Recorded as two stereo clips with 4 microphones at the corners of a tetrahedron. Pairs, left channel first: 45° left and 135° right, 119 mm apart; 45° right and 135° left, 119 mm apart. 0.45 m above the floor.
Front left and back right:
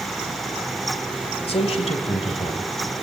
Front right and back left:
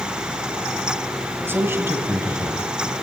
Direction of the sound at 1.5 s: 65° left.